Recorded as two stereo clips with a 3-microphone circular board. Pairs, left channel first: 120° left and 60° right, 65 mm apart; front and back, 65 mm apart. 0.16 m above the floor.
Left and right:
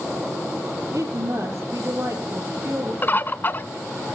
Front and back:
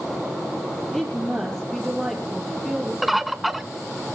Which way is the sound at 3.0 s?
95° left.